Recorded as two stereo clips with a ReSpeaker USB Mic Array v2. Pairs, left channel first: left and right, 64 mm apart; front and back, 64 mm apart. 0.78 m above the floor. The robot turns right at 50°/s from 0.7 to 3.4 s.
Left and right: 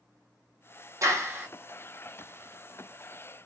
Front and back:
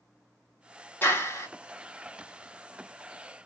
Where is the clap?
55° right, 0.9 m; by 1.5 s 35° right, 0.9 m.